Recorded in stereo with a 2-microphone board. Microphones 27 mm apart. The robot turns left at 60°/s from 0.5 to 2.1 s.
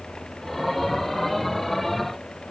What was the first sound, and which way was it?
Only background noise.